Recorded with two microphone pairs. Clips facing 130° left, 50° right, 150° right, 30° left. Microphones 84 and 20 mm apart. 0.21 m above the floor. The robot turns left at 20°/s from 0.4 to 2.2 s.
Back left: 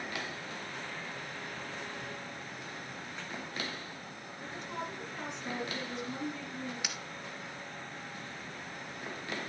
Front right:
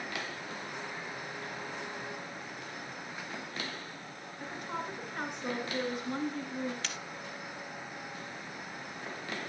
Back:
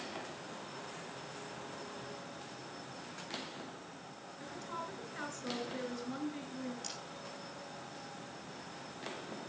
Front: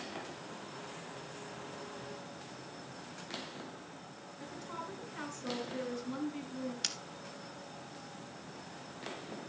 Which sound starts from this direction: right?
A woman speaking, at 4.4 s.